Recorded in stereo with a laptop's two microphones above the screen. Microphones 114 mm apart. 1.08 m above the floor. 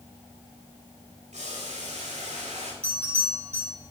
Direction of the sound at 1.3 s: 85° right.